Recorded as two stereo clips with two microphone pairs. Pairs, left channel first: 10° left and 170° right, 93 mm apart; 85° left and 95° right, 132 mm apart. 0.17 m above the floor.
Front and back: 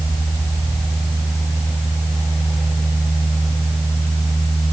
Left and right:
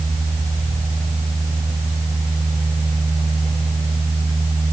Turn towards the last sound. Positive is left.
No sound to turn to.